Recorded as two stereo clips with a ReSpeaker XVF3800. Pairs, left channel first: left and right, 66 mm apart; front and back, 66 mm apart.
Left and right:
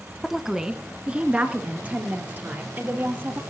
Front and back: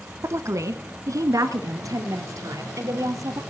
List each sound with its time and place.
0.2 s a woman speaking: straight behind, 1.5 m; by 3.4 s 150° right, 4.5 m